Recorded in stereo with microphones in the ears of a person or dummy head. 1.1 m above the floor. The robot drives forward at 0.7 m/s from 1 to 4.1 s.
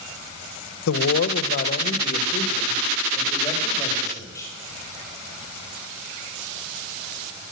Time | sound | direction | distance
0.9 | a man speaking | 70° left (ahead or behind) | 0.8 m